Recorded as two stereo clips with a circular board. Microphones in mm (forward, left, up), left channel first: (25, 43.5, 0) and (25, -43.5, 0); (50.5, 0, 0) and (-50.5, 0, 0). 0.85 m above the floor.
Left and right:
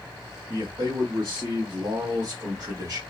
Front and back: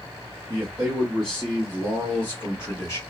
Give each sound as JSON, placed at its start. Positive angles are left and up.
{"t": 0.5, "sound": "a man speaking", "azimuth_deg": -115, "distance_m": 1.5}